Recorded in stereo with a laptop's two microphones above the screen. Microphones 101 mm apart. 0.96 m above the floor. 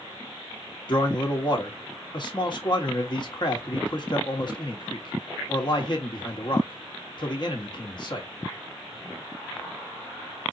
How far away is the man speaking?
About 1.6 m.